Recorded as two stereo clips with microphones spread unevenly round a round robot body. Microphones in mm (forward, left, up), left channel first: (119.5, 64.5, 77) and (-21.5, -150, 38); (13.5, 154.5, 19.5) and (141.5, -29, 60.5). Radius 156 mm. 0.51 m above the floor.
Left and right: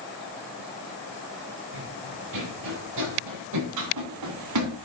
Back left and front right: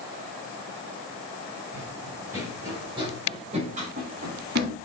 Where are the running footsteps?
140° right, 8 m; by 4.8 s 115° right, 7 m.